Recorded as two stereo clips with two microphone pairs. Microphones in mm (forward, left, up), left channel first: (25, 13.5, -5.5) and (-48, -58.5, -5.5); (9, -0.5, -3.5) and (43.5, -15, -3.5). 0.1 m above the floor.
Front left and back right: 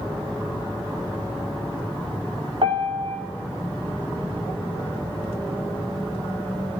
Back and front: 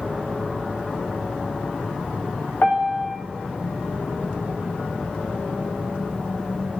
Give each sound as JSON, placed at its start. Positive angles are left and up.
{"t": 2.6, "sound": "a piano", "azimuth_deg": -165, "distance_m": 5.0}